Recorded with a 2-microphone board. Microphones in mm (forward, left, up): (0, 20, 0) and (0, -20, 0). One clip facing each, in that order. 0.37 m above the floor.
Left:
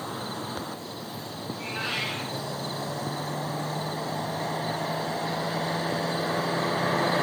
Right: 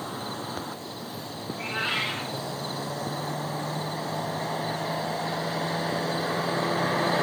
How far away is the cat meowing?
About 6 m.